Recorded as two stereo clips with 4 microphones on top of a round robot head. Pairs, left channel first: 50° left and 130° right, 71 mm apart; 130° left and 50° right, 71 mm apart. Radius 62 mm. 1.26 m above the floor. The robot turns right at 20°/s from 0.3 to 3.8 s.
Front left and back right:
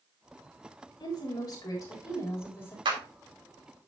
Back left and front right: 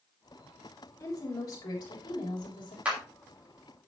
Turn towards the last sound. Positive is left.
turn(degrees=-110)